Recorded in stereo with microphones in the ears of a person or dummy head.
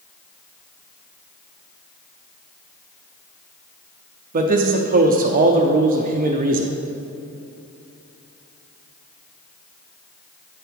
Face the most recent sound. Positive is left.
turn(degrees=-40)  # may be behind; listen again after turning